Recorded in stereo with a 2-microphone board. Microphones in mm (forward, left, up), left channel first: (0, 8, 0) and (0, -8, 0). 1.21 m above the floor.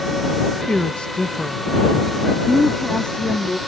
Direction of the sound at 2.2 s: 55° left (ahead or behind).